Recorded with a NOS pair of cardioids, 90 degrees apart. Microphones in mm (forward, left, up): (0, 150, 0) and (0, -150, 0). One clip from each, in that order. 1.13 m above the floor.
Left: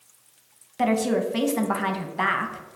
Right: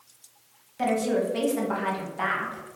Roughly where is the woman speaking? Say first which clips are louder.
Left 2 dB; ahead left.